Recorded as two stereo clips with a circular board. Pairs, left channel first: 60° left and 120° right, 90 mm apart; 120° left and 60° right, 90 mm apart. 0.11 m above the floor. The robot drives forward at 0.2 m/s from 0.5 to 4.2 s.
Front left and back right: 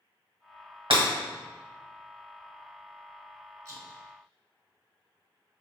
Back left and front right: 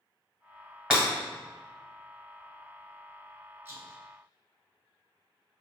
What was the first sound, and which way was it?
Breaking glass, 140° right.